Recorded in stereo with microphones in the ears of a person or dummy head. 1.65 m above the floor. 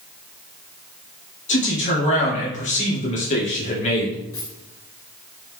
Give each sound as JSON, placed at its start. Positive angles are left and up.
{"t": 1.5, "sound": "a man speaking", "side_deg": 35, "distance_m": 2.5}
{"t": 4.3, "sound": "a dropped coin", "side_deg": 15, "distance_m": 1.5}